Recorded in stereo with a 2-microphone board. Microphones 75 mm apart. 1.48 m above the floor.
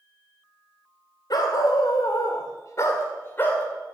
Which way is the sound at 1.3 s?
60° left (ahead or behind).